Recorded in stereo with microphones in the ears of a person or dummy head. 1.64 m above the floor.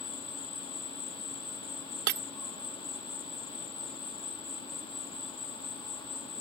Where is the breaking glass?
60° right (ahead or behind).